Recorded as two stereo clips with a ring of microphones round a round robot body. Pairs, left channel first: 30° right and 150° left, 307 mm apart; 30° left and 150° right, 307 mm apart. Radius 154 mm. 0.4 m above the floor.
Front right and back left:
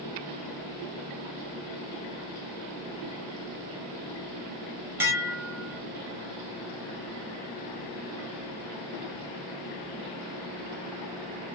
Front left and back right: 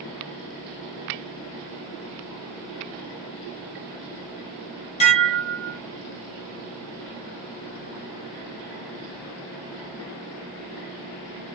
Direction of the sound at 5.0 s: 75° left.